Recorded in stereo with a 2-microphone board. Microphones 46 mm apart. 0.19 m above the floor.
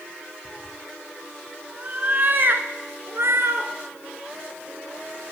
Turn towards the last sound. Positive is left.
turn(degrees=-70)  # may be behind; listen again after turning